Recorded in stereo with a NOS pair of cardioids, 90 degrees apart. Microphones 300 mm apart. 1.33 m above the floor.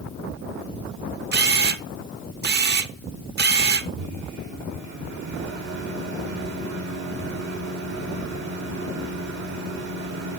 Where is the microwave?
70° right, 4 m.